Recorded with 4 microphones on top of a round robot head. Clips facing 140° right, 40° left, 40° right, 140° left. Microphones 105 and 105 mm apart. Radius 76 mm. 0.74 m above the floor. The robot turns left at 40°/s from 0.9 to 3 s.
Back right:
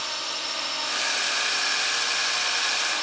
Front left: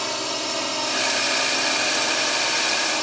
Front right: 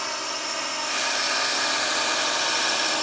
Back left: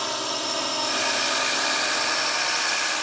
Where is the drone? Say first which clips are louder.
Front left 7 dB, back left 3 dB; 70° left; by 3.0 s 15° left.